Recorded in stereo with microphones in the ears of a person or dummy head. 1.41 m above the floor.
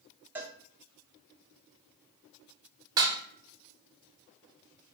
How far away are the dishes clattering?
About 0.7 m.